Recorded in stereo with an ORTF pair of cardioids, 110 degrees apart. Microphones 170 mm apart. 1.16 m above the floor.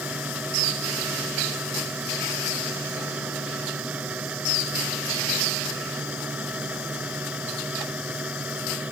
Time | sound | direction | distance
0.0 | a fan | 10° right | ?